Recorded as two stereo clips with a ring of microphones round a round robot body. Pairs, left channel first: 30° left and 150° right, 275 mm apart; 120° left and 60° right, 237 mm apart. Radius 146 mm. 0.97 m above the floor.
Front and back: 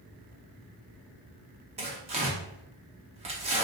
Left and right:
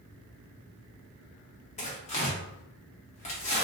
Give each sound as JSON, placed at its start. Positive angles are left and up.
{"t": 1.8, "sound": "tearing paper", "azimuth_deg": 160, "distance_m": 0.5}